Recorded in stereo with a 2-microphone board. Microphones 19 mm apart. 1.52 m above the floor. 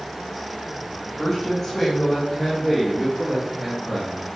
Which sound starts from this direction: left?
A woman speaking, at 1.2 s.